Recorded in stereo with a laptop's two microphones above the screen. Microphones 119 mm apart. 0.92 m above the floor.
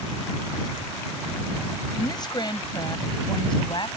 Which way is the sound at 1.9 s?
35° left (ahead or behind).